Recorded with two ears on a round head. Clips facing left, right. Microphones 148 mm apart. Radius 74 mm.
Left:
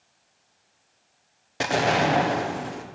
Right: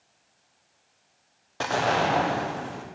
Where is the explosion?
20° left (ahead or behind), 0.9 m.